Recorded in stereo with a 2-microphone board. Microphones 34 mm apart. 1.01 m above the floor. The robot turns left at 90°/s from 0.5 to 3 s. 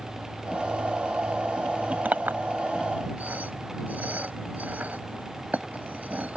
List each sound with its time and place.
2.0 s a clink: 45° right (ahead or behind); by 6.4 s 50° right (ahead or behind)